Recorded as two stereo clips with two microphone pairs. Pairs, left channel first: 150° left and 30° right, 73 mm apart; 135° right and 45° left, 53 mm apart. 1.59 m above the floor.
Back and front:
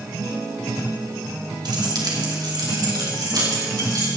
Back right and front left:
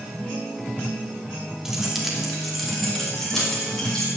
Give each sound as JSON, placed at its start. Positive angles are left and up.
{"t": 1.6, "sound": "keys jangling", "azimuth_deg": -40, "distance_m": 2.0}